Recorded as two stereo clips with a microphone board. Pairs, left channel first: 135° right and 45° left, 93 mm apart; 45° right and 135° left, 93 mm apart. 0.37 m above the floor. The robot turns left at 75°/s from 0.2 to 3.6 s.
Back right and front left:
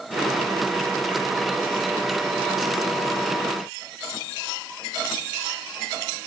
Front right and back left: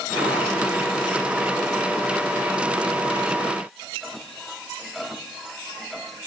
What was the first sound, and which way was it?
Only background noise.